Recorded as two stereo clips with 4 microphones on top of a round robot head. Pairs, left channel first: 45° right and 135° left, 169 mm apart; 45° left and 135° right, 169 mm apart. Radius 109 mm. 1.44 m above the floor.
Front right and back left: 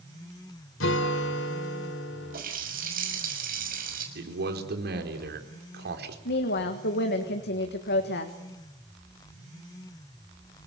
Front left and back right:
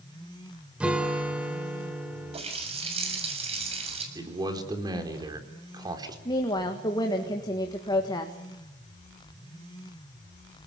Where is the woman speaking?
20° right, 1.8 m.